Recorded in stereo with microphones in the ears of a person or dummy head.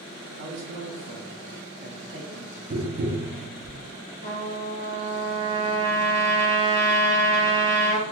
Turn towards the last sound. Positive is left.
turn(degrees=40)  # may be behind; listen again after turning